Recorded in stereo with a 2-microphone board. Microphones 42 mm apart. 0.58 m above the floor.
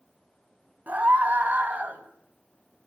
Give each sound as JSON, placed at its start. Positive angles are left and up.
{"t": 0.9, "sound": "a scream", "side_deg": -45, "distance_m": 3.5}